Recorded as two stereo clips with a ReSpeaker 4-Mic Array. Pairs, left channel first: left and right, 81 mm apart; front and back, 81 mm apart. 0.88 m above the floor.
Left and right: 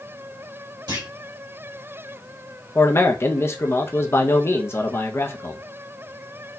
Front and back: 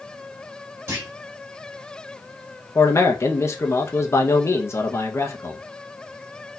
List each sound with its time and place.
0.9 s a clunk: 125° right, 1.7 m
2.8 s a man speaking: 40° left, 0.6 m